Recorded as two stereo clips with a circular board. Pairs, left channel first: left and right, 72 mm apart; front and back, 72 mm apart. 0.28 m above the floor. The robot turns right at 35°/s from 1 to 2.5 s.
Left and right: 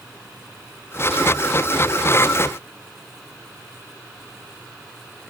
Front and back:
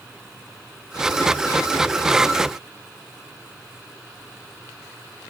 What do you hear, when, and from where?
Only background noise.